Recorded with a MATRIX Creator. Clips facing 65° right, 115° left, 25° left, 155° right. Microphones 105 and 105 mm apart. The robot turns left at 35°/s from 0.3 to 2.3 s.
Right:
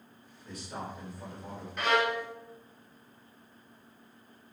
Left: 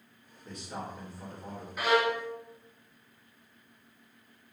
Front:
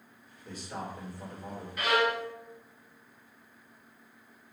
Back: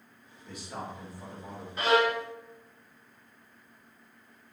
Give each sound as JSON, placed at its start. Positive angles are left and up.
{"t": 0.5, "sound": "a man speaking", "azimuth_deg": 80, "distance_m": 1.9}
{"t": 1.8, "sound": "a violin", "azimuth_deg": -170, "distance_m": 0.6}